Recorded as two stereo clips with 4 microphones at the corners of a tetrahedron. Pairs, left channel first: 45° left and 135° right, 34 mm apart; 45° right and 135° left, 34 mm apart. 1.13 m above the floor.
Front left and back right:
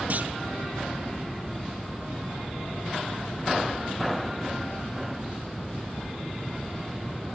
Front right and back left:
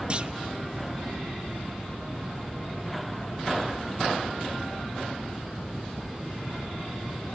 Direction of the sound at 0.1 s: 170° right.